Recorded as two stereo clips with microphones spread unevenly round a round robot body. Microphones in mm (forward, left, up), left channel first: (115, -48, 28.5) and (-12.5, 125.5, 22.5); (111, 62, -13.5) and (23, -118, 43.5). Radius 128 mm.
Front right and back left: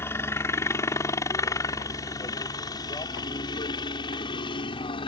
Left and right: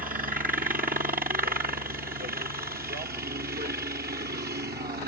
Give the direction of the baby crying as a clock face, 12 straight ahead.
I don't hear a baby crying.